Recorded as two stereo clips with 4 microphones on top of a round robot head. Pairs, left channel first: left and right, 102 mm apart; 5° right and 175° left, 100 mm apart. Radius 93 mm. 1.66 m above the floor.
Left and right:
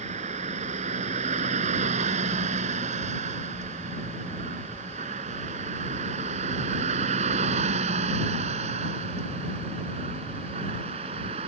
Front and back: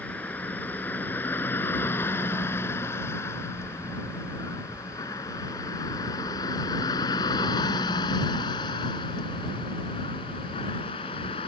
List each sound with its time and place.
0.0 s a vehicle: 85° right; by 11.5 s 50° right